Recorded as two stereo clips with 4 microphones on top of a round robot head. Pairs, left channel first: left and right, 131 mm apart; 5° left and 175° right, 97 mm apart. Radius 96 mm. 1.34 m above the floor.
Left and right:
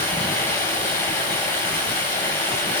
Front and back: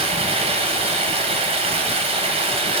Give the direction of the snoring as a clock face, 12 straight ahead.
No snoring in this recording.